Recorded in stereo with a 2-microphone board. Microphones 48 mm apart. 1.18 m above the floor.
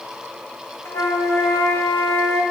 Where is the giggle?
I don't hear a giggle.